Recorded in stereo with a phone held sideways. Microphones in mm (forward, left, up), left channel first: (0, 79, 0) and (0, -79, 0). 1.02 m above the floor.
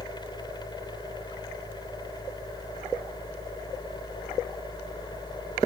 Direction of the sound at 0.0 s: 30° left (ahead or behind).